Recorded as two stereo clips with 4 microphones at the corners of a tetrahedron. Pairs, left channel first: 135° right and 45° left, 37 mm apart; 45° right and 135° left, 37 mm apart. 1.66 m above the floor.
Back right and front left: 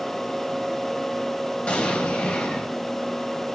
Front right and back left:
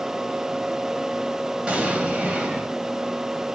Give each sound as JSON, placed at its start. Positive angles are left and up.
{"t": 1.7, "sound": "an explosion", "azimuth_deg": 180, "distance_m": 1.0}